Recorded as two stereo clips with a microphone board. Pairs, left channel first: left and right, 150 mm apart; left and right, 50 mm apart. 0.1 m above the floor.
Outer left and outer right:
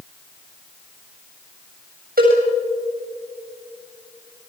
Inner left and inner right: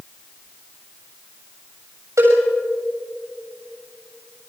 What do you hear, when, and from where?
2.2 s a cowbell: 80° right, 7.5 m